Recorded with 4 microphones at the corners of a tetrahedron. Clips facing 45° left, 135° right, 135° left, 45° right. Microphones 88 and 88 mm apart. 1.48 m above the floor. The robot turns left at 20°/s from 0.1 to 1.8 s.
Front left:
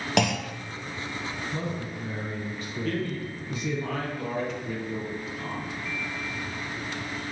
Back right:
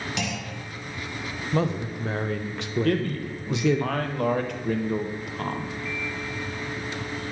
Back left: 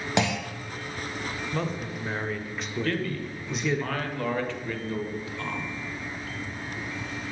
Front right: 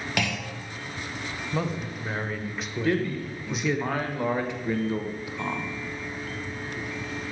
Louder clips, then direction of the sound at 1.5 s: Back right 7 dB, front right 3 dB; 130° right.